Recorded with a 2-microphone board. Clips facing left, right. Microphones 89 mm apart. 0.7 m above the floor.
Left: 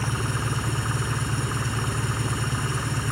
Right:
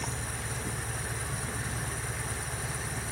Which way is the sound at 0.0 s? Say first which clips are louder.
Left 9 dB; 75° left (ahead or behind).